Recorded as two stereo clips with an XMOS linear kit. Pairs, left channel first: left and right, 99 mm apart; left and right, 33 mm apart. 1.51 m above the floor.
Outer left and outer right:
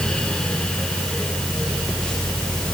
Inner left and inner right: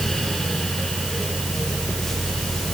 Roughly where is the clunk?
I don't hear a clunk.